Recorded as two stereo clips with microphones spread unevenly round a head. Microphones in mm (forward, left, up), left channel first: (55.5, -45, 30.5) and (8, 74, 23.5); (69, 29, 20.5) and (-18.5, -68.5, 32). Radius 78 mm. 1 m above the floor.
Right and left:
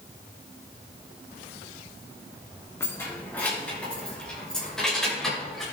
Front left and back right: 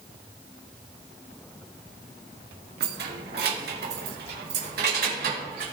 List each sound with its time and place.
2.8 s keys jangling: 145° right, 1.4 m; by 5.6 s 155° right, 3.5 m